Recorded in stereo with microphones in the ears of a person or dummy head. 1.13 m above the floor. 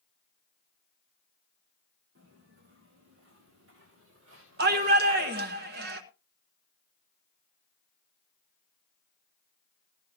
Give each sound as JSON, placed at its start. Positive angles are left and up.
{"t": 2.1, "sound": "footsteps", "side_deg": -55, "distance_m": 5.5}
{"t": 4.6, "sound": "a shout", "side_deg": -50, "distance_m": 1.2}